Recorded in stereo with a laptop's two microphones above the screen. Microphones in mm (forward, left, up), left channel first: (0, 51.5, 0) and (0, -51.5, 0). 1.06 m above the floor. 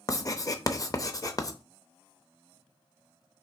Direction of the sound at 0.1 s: 35° left (ahead or behind).